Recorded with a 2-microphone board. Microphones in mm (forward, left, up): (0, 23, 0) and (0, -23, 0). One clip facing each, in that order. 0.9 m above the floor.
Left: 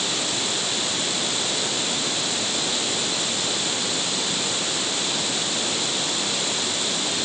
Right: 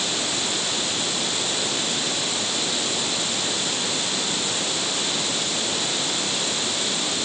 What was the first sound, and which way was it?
Only background noise.